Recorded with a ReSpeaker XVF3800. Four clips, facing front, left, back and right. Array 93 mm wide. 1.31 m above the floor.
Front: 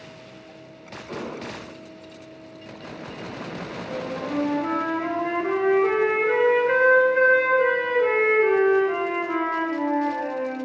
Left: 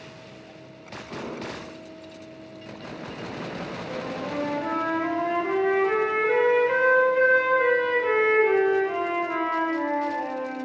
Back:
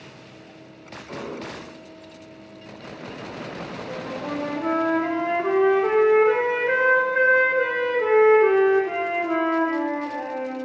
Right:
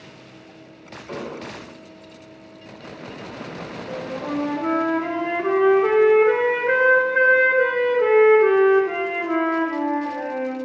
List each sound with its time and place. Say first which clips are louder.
1.1 s an explosion: right 2 dB, even; 80° right, 3 m
3.9 s a flute: right 5 dB, front 2 dB; 110° right, 3 m